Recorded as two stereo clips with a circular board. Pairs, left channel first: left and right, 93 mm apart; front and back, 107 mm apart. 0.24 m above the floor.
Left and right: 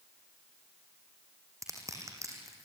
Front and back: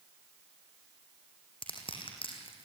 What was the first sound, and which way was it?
Crushing, 35° right.